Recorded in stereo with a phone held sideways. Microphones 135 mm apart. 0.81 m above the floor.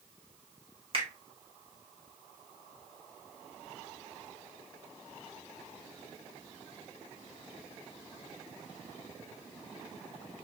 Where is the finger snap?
45° right (ahead or behind), 1.1 m.